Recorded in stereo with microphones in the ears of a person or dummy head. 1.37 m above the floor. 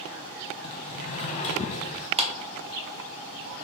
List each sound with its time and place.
0.6 s a sliding door: 35° left (ahead or behind), 0.8 m
2.2 s a clap: 35° right (ahead or behind), 0.6 m